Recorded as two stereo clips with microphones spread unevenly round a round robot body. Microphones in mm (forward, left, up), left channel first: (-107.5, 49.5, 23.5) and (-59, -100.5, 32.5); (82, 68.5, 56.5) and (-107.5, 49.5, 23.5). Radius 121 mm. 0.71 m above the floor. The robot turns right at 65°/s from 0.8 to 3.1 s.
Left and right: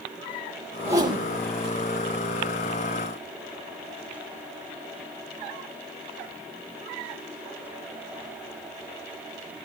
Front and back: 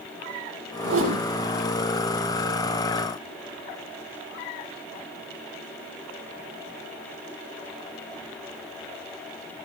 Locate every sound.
0.8 s a whoosh: 145° right, 3.5 m; by 1.2 s 120° right, 3.5 m